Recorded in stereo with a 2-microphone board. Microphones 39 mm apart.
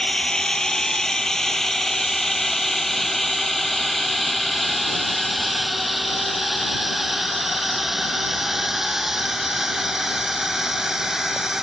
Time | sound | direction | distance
0.0 | a drone | 20° left (ahead or behind) | ?